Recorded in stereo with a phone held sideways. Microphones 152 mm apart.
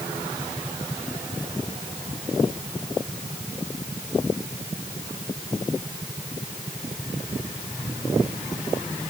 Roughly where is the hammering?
I don't hear hammering.